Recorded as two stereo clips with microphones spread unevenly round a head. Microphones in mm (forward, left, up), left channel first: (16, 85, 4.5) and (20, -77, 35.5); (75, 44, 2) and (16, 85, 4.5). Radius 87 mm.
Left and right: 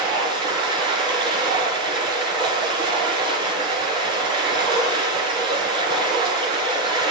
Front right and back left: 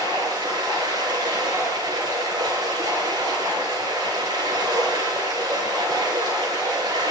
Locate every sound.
0.0 s running water: 150° right, 5 m